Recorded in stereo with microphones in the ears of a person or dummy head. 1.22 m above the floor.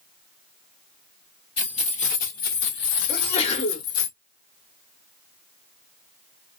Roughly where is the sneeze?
Left.